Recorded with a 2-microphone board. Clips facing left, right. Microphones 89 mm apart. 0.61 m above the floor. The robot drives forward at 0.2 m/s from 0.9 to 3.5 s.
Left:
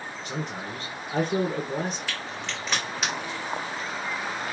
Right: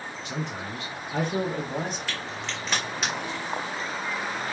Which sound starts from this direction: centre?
A crack, at 2.1 s.